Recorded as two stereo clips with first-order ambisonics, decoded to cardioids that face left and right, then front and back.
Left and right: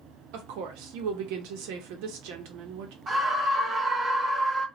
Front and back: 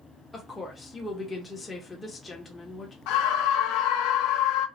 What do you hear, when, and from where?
0.3 s a woman speaking: 80° right, 1.3 m
3.1 s a scream: 20° right, 0.9 m